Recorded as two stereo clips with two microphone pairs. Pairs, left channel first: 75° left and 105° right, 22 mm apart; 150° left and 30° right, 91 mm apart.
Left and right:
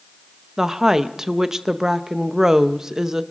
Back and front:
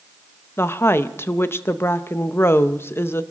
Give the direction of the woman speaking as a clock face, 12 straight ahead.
5 o'clock.